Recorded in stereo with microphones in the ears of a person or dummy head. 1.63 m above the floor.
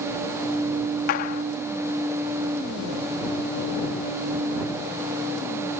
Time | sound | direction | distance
1.1 | a clap | 50° left (ahead or behind) | ?